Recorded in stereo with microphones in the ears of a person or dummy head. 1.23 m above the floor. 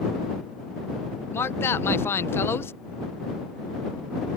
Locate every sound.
1.3 s a man speaking: 15° left (ahead or behind)